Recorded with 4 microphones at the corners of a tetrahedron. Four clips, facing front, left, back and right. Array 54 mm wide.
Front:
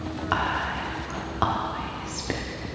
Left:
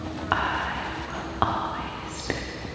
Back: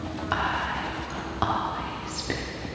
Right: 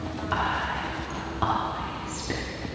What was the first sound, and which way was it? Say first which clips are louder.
Whispering: left 2 dB, front 1 dB; 75° left.